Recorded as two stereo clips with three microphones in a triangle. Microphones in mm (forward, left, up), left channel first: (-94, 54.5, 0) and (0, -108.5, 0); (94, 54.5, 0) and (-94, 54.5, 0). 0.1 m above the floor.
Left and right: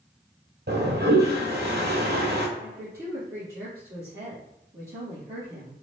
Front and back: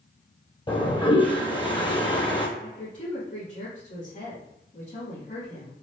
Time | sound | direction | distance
0.7 | a toilet flushing | 60° right | 0.9 m
2.6 | a woman speaking | 10° left | 2.0 m